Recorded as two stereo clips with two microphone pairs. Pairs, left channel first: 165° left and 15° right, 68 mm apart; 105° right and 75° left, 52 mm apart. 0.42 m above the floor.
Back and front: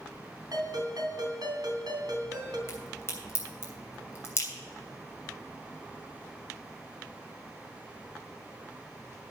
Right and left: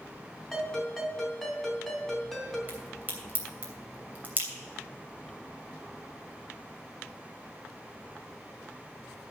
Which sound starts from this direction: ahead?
A ringtone, at 0.5 s.